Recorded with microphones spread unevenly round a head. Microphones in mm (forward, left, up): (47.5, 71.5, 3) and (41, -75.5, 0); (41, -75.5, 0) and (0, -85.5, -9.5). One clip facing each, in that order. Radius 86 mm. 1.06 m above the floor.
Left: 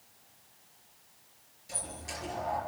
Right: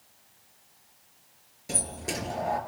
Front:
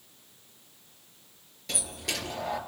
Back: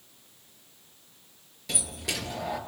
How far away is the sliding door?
About 4 m.